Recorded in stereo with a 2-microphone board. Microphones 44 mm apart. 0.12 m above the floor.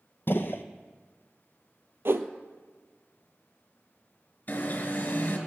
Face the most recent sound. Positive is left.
turn(degrees=35)  # may be behind; listen again after turning